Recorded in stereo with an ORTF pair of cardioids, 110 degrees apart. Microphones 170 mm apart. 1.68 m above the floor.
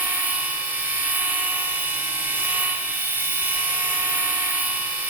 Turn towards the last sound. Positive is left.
turn(degrees=-10)